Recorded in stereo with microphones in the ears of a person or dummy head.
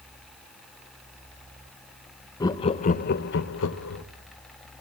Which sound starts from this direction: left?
Laughter, at 2.4 s.